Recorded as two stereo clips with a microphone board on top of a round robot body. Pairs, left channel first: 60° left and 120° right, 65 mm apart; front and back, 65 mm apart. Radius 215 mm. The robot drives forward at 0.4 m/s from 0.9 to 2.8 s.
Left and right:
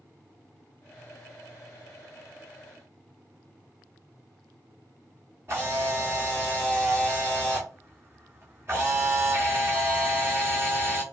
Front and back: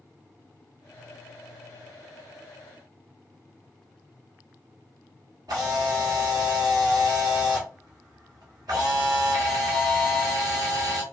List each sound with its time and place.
5.5 s a camera shutter: 170° right, 1.0 m